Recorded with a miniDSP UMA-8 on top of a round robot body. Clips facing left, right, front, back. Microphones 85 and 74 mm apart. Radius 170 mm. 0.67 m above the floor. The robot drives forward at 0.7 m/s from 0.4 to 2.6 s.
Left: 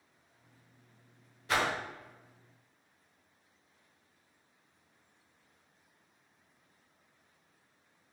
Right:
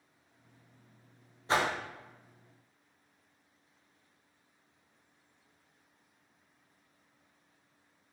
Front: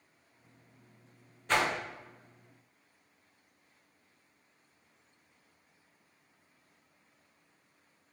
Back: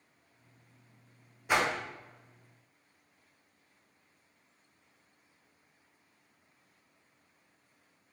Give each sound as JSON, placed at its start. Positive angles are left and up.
{"t": 1.5, "sound": "a whoosh", "azimuth_deg": -110, "distance_m": 0.9}